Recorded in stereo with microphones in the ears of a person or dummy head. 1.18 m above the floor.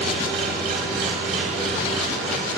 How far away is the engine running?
About 4.5 m.